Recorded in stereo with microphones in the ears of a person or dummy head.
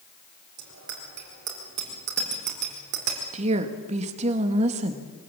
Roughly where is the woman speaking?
Right.